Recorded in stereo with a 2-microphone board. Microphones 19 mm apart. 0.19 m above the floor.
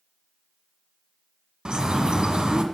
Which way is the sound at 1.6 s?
45° right (ahead or behind).